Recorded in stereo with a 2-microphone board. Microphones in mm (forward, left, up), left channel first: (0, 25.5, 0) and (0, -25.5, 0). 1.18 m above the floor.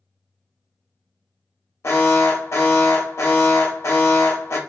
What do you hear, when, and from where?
1.8 s an alarm: 65° left (ahead or behind), 0.9 m